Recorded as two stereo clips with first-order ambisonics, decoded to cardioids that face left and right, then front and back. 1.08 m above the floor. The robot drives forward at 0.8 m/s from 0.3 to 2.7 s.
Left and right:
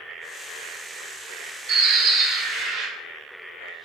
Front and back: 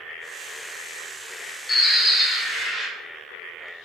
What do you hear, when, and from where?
1.7 s a bird: 75° right, 0.9 m; by 2.9 s 135° right, 1.1 m